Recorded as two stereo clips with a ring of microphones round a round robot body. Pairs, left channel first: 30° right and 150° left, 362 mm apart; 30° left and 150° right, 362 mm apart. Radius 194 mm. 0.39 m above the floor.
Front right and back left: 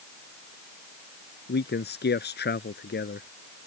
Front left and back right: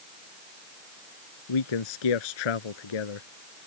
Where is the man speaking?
35° left.